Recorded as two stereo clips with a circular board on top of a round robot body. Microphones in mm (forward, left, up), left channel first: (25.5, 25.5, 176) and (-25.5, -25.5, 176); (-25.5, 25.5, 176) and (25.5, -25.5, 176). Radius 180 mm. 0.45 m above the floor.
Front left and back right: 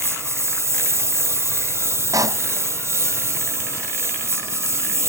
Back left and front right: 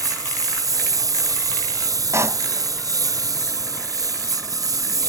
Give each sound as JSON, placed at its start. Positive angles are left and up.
{"t": 0.0, "sound": "a lawn mower", "azimuth_deg": -85}
{"t": 2.1, "sound": "a pop", "azimuth_deg": -95}